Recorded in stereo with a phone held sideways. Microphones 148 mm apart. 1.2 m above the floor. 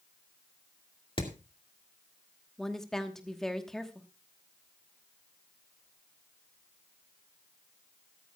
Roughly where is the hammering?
Left.